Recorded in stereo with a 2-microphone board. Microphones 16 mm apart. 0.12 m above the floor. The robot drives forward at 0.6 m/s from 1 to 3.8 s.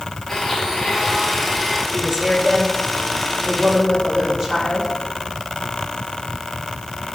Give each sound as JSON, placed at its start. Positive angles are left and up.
{"t": 0.3, "sound": "a blender", "side_deg": 5, "distance_m": 4.5}
{"t": 1.9, "sound": "a woman speaking", "side_deg": -35, "distance_m": 3.0}